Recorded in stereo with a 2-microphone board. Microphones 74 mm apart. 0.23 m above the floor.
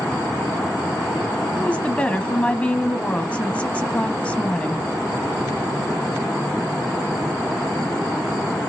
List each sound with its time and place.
1.6 s a woman speaking: 15° left (ahead or behind), 1.2 m